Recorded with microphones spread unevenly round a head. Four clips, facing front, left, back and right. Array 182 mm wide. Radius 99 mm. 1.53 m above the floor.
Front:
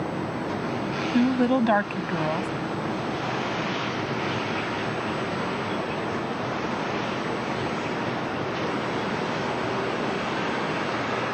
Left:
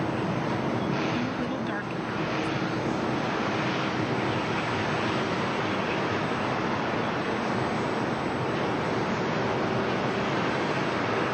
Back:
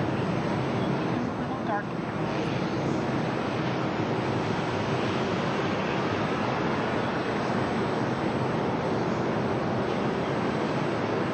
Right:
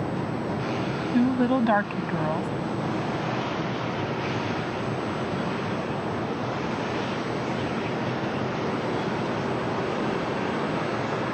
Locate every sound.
1.1 s a woman speaking: 30° right